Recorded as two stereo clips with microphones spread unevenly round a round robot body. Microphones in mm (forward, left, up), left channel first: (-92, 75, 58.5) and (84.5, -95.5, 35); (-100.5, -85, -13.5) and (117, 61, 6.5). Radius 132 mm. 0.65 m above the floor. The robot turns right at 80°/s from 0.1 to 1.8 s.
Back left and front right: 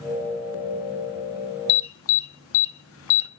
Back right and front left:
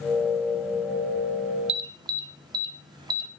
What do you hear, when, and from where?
1.7 s an alarm: 100° left, 0.6 m; by 3.3 s 110° left, 0.6 m